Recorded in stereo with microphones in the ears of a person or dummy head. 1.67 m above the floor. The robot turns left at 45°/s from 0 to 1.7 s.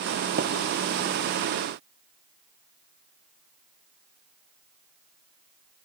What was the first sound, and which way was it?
Tapping, 45° right (ahead or behind).